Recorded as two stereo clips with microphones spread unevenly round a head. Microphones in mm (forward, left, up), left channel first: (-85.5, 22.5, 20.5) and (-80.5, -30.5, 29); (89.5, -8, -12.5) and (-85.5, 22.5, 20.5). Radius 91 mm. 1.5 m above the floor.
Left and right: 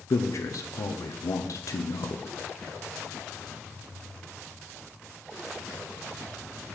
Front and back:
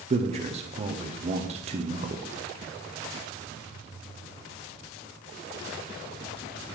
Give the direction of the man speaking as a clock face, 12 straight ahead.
8 o'clock.